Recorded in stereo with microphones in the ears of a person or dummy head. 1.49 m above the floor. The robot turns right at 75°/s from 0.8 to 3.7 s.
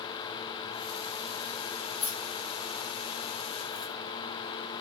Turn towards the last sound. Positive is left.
turn(degrees=-60)  # may be behind; listen again after turning